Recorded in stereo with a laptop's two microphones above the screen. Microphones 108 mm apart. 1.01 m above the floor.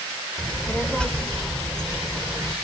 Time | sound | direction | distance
0.4 | a child speaking | 10° left (ahead or behind) | 3 m